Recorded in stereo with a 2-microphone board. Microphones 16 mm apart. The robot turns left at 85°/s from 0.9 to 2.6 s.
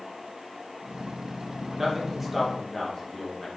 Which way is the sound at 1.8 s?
130° right.